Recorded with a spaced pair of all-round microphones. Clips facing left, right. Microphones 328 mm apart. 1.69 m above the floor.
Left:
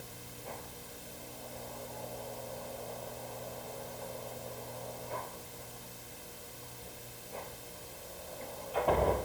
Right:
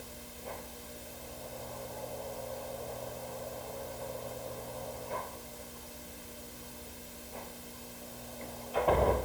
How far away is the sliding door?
No sliding door in this recording.